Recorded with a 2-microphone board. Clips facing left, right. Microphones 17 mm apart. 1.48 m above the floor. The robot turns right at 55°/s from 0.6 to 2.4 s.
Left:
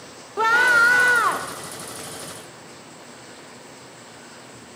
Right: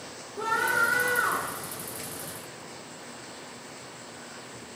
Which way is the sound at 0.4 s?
95° left.